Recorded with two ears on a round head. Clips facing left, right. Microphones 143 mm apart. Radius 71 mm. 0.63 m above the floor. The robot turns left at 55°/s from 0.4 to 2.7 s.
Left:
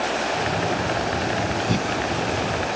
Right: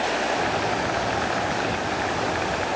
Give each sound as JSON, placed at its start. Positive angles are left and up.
{"t": 1.7, "sound": "breathing", "side_deg": 50}